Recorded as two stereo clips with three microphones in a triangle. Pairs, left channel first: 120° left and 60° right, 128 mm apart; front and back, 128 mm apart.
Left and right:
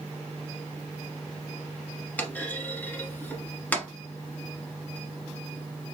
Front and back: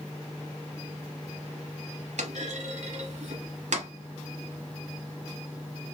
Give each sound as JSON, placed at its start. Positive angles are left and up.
{"t": 2.2, "sound": "a clunk", "azimuth_deg": -165, "distance_m": 1.1}